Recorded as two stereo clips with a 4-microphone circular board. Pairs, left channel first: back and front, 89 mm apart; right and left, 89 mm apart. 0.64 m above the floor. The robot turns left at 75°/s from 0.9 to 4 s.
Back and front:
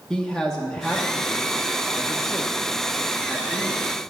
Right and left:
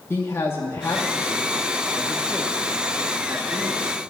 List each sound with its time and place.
0.1 s a man speaking: 105° right, 1.0 m; by 3.8 s 40° left, 1.0 m